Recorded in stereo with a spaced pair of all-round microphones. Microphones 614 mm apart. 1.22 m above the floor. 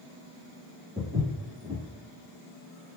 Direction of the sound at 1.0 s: 10° right (ahead or behind).